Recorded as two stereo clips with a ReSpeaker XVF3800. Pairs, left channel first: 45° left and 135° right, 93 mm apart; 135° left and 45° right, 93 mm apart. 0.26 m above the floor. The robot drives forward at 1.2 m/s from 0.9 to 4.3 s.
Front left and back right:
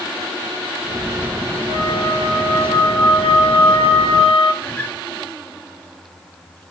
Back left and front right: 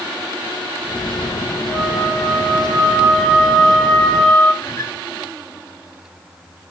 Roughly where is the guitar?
Left.